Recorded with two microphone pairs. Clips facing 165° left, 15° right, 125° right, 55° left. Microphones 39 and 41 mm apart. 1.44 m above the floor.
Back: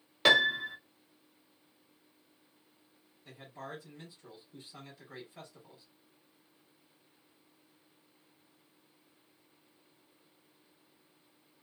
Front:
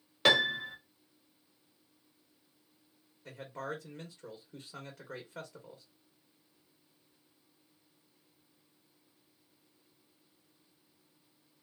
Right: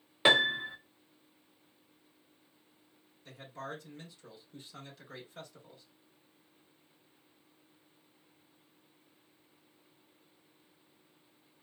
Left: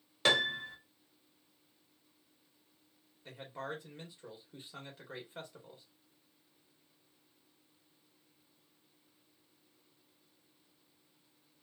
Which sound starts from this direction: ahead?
A man speaking, at 3.2 s.